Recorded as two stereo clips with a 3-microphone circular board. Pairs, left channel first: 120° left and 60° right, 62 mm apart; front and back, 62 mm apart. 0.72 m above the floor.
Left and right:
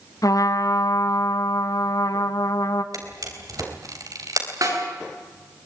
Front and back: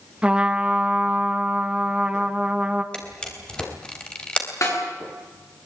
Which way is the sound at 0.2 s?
110° left.